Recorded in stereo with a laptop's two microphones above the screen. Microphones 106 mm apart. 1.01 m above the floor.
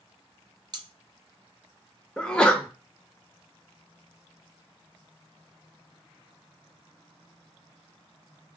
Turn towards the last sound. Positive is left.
turn(degrees=10)  # may be behind; listen again after turning